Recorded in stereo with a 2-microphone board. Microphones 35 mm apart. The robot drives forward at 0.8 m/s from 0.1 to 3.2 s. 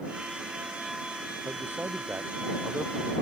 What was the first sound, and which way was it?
A man speaking, 80° right.